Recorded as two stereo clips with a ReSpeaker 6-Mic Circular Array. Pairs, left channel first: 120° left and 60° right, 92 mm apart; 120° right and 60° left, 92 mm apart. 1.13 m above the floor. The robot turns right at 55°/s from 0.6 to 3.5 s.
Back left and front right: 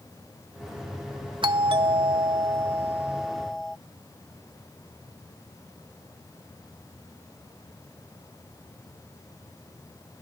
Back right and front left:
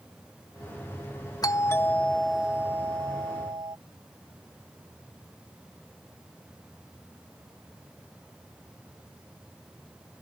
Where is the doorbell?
80° right; by 3.8 s 35° left.